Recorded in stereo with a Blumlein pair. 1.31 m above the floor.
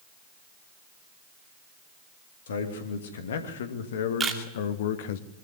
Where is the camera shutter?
20° right, 2 m.